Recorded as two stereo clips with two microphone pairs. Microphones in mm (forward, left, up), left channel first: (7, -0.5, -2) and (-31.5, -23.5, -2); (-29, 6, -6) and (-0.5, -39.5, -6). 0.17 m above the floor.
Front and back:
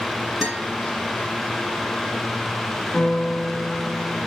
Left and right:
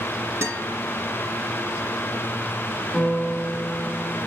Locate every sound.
0.4 s a guitar: 70° right, 3 m
2.9 s a piano: 45° left, 1.2 m